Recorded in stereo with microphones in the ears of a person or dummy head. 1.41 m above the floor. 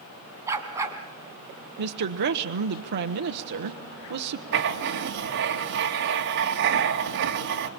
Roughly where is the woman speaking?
Right.